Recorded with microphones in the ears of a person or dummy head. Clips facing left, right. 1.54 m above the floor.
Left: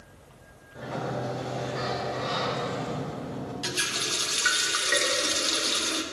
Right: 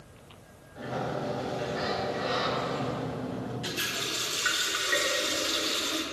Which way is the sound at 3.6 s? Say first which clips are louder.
Left 1 dB; 60° left (ahead or behind).